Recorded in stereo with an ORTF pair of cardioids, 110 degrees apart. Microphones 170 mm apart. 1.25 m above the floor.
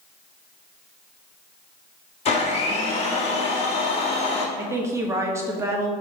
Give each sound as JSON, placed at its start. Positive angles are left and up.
{"t": 2.2, "sound": "a blender", "azimuth_deg": 40, "distance_m": 1.7}
{"t": 4.6, "sound": "a woman speaking", "azimuth_deg": -15, "distance_m": 1.6}